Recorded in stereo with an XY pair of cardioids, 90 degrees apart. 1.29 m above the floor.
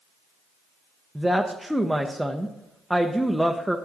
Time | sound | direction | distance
1.1 | a woman speaking | 5° right | 0.6 m